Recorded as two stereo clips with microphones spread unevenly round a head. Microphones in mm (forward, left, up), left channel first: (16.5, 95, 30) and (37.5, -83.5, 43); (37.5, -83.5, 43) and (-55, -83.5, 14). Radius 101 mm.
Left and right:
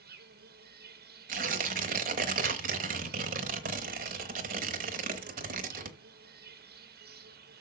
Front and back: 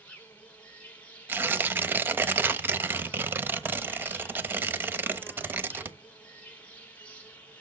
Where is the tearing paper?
100° right, 1.0 m.